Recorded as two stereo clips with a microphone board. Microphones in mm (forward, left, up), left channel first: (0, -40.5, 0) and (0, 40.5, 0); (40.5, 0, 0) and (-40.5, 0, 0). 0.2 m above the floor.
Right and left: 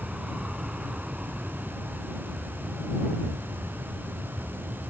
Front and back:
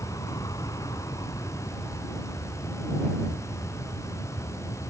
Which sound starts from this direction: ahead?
An aircraft, at 0.0 s.